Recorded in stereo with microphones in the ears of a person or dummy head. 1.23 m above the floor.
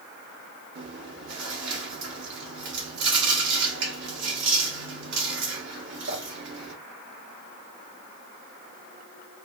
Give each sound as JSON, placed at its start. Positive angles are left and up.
{"t": 0.8, "sound": "chewing", "side_deg": -60, "distance_m": 1.0}